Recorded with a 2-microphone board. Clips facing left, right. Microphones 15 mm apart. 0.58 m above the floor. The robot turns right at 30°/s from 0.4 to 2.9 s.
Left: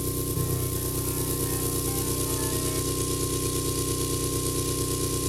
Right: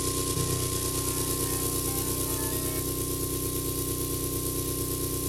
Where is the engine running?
40° right, 0.8 m; by 5.3 s 35° left, 0.8 m.